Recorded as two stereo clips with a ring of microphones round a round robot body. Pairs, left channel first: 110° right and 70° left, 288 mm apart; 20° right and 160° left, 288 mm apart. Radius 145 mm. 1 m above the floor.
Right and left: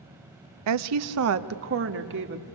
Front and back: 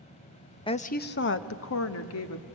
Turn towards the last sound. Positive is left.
turn(degrees=15)